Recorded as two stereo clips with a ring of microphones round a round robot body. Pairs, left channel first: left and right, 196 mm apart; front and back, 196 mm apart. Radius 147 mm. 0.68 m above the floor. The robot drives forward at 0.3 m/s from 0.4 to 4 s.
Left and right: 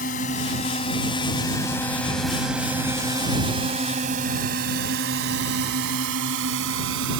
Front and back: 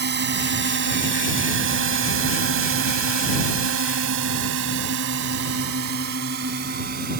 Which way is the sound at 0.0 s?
150° left.